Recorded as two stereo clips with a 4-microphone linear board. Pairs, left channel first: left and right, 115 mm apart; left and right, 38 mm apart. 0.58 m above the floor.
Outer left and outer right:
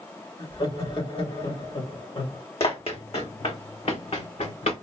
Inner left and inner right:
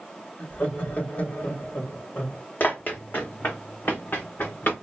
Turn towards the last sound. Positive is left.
turn(degrees=70)  # may be behind; listen again after turning